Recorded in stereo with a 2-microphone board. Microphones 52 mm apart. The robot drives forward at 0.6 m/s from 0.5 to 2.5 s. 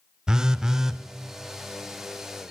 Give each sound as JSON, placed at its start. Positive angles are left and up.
{"t": 0.3, "sound": "a phone buzzing", "side_deg": -15, "distance_m": 0.5}